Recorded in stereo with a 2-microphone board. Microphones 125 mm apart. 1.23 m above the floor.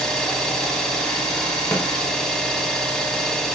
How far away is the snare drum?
About 0.7 m.